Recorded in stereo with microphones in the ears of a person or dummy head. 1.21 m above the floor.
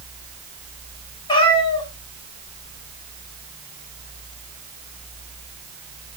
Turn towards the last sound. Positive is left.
turn(degrees=25)  # may be behind; listen again after turning